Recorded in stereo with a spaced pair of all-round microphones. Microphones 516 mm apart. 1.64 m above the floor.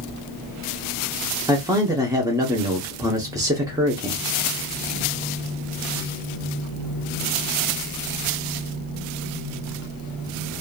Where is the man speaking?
5° right (ahead or behind), 0.7 m.